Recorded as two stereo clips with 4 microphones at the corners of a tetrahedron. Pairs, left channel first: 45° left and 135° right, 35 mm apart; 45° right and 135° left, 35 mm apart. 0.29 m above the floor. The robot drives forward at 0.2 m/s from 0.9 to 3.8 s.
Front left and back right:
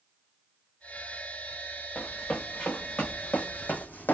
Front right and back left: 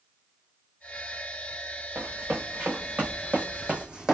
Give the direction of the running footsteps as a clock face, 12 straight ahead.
8 o'clock.